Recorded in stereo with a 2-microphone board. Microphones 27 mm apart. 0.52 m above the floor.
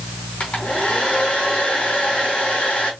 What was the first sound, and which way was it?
A hair dryer, 45° left (ahead or behind).